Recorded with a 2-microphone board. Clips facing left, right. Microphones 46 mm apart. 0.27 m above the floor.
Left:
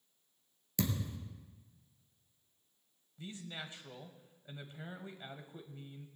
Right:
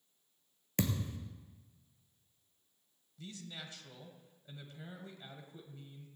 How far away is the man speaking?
About 1.5 m.